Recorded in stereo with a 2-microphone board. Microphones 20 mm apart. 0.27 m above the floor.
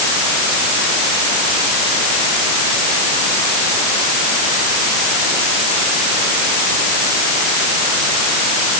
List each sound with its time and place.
Only background noise.